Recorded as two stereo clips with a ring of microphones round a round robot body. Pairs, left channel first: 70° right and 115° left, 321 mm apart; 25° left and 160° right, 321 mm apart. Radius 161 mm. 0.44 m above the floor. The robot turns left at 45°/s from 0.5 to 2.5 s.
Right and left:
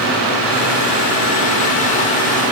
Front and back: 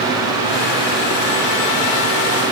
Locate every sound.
Only background noise.